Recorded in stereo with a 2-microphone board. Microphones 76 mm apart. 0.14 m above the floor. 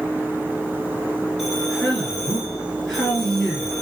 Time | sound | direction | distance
1.4 | a man speaking | 5° left (ahead or behind) | 2.5 m